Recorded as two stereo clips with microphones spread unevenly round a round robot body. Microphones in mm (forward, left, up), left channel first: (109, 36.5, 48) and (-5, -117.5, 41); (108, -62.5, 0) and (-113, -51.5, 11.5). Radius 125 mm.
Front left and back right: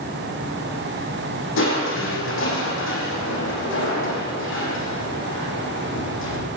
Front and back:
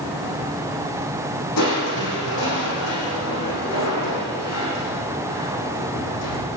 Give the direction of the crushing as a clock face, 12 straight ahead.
11 o'clock.